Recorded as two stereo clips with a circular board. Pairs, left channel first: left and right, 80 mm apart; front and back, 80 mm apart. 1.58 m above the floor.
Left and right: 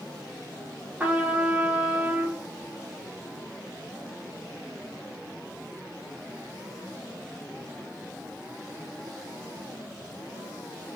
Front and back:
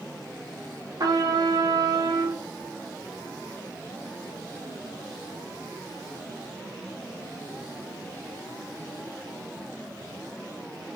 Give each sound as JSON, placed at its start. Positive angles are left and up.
{"t": 1.0, "sound": "a trumpet", "azimuth_deg": -160, "distance_m": 0.6}